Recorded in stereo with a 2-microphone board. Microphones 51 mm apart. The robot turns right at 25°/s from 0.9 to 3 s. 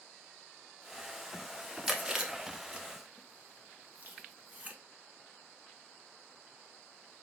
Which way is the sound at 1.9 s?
5° right (ahead or behind).